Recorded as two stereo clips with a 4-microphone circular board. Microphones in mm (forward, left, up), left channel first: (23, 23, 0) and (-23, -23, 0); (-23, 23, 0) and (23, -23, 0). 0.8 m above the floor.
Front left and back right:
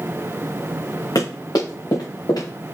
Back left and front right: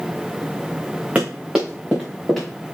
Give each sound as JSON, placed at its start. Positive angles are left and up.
{"t": 1.1, "sound": "running footsteps", "azimuth_deg": 25, "distance_m": 3.5}